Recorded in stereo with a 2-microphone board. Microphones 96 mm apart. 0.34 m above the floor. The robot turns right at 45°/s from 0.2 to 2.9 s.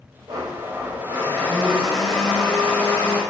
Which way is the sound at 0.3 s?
80° right.